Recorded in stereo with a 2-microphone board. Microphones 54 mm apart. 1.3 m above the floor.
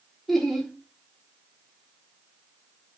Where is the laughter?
5° left (ahead or behind), 3.5 m.